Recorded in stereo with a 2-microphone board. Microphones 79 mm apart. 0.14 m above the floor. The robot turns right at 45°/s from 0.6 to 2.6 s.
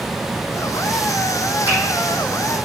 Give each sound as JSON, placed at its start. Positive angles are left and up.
{"t": 1.7, "sound": "a finger snap", "side_deg": -25, "distance_m": 3.5}